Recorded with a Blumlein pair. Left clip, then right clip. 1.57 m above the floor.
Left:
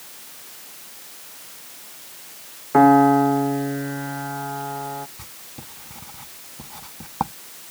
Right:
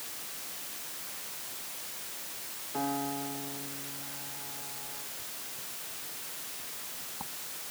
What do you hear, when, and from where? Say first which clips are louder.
2.7 s a piano: left 21 dB; 50° left
5.2 s writing: left 2 dB; 50° left